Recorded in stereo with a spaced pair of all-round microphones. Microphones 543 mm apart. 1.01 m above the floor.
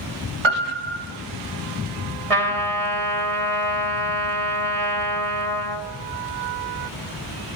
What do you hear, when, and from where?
0.4 s a piano: 60° right (ahead or behind), 2.0 m
2.3 s a trumpet: 85° right, 1.8 m